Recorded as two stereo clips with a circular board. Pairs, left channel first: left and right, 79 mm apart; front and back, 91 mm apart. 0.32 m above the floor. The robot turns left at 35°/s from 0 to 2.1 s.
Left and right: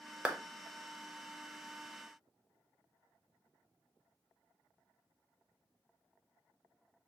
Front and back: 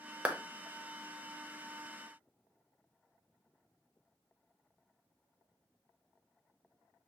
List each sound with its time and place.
0.2 s a clap: 135° right, 0.6 m